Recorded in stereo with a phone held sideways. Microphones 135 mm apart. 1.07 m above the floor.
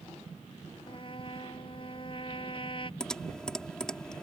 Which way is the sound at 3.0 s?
5° left (ahead or behind).